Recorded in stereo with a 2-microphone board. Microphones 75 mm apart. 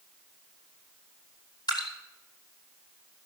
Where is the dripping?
65° left (ahead or behind), 2.5 m.